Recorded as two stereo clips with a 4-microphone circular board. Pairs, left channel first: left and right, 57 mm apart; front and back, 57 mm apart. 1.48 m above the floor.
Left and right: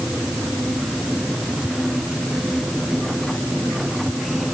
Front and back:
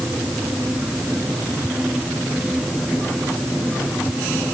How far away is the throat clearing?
No throat clearing in this recording.